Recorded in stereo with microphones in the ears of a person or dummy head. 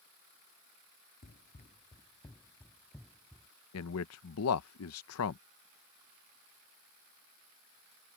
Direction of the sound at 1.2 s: 45° left (ahead or behind).